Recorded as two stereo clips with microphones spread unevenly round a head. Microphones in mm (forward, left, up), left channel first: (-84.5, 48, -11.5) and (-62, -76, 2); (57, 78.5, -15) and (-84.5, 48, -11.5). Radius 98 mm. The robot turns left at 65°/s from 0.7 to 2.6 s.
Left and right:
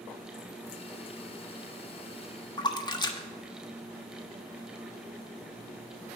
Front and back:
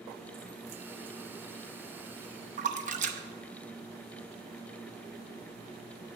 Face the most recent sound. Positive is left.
turn(degrees=160)